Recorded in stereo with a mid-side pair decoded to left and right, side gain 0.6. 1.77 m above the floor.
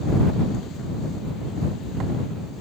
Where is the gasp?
I don't hear a gasp.